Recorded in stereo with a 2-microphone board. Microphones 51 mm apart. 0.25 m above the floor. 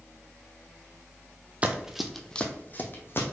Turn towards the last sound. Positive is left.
turn(degrees=45)  # may be behind; listen again after turning